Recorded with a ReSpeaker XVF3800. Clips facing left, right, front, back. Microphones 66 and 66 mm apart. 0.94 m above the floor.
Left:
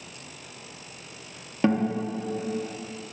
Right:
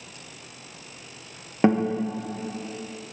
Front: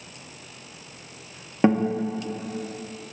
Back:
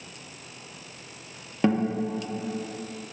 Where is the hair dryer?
I don't hear a hair dryer.